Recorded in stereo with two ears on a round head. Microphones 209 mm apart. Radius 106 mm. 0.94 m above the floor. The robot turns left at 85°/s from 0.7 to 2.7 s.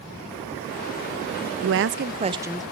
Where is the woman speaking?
95° right, 0.5 m; by 2.6 s straight behind, 0.5 m.